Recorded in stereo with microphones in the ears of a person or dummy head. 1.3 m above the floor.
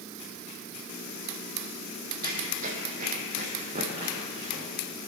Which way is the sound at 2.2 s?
40° right (ahead or behind).